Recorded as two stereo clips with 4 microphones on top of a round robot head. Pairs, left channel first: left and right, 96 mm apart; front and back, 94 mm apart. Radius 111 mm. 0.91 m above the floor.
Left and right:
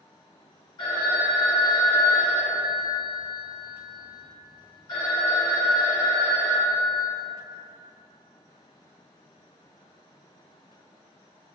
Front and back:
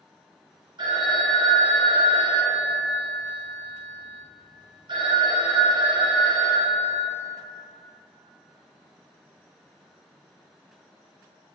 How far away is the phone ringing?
About 0.9 m.